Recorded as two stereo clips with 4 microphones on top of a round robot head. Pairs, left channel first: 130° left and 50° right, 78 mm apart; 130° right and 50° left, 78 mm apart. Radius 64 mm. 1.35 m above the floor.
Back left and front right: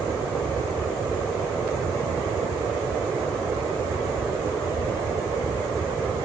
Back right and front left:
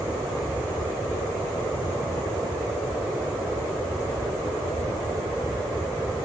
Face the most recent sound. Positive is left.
No sound to turn to.